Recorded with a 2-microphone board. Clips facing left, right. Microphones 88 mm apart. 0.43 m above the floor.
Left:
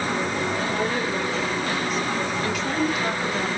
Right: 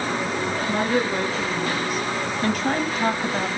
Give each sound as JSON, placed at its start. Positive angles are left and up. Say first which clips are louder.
{"t": 0.7, "sound": "a woman speaking", "louder": "right 3 dB", "side_deg": -70, "distance_m": 3.5}